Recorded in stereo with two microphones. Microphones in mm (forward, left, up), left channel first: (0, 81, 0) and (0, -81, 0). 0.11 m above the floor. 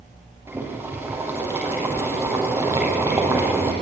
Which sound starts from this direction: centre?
Boiling, at 0.5 s.